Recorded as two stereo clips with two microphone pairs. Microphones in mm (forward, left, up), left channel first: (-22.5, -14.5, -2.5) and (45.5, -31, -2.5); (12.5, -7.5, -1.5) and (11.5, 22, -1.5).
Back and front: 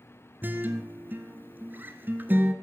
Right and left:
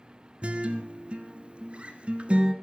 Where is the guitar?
45° left, 1.6 m.